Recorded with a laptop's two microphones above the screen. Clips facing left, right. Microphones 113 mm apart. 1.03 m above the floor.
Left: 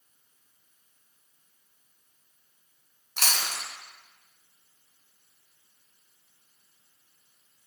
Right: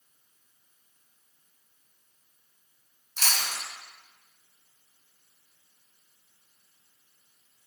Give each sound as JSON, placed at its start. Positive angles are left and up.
{"t": 3.2, "sound": "chewing", "side_deg": 65, "distance_m": 1.7}